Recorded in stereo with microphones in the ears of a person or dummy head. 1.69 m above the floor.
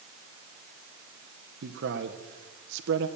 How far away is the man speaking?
About 1.8 m.